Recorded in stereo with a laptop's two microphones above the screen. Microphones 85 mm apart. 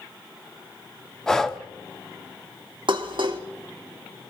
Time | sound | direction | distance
1.3 | breathing | 5° left (ahead or behind) | 0.6 m
2.9 | dishes clattering | 75° right (ahead or behind) | 1.4 m